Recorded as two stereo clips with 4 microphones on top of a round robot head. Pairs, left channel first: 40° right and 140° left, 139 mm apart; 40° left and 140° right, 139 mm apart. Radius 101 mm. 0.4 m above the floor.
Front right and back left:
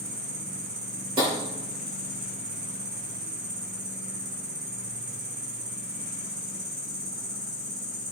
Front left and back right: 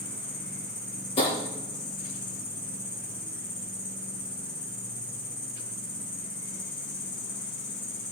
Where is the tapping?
85° left, 5 m.